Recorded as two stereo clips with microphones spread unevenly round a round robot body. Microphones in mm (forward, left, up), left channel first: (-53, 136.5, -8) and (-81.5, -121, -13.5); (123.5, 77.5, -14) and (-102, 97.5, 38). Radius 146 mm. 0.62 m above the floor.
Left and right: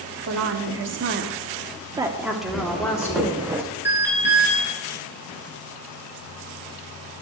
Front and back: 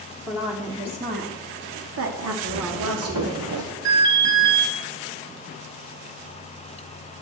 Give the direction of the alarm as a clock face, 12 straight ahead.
6 o'clock.